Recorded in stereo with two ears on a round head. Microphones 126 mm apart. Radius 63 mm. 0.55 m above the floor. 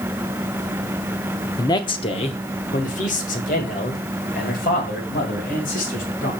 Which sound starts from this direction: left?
A man speaking, at 1.6 s.